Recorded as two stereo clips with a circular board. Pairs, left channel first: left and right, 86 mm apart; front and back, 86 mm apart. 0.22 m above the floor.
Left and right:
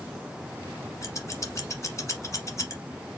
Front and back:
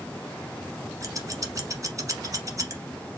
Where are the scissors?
135° left, 1.1 m.